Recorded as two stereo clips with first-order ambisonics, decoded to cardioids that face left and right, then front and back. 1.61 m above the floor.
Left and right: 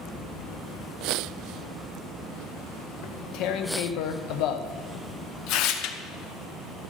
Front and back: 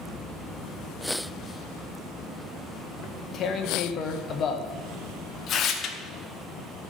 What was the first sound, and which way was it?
Tearing paper, 60° left.